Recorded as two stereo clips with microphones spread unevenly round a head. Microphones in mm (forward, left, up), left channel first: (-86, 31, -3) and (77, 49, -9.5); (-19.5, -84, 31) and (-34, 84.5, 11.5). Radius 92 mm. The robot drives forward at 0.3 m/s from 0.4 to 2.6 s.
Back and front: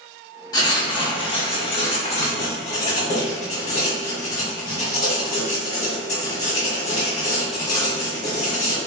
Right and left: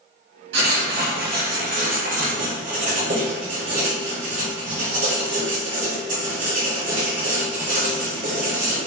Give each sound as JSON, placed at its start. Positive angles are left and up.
{"t": 0.5, "sound": "writing", "azimuth_deg": 120, "distance_m": 1.2}